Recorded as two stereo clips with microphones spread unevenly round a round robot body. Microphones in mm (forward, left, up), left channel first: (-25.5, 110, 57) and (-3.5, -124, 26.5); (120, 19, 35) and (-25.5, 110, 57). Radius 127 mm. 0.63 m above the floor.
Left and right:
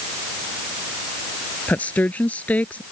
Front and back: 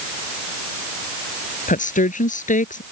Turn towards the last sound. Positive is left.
turn(degrees=10)